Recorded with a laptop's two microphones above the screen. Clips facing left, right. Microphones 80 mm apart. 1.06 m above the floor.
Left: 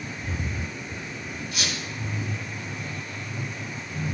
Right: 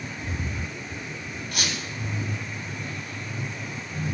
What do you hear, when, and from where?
1.5 s a squeak: 65° right (ahead or behind), 2.5 m